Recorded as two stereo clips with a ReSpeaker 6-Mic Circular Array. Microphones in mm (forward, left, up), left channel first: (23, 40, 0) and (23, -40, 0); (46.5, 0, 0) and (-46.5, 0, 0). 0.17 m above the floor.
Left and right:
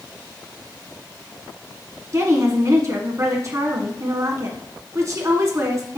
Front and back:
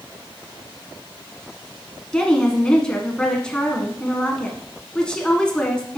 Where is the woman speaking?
75° right, 1.3 m.